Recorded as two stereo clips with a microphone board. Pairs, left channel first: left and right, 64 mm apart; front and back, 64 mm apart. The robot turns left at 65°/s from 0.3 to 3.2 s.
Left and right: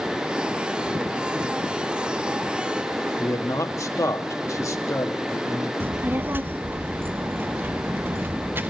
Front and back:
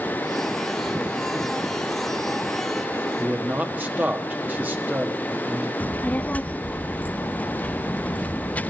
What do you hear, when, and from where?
3.2 s a man speaking: 125° left, 1.8 m; by 5.7 s 120° left, 1.8 m
5.8 s a child speaking: 55° right, 0.6 m